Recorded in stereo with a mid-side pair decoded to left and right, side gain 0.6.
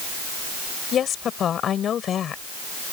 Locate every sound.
0.9 s a woman speaking: 45° left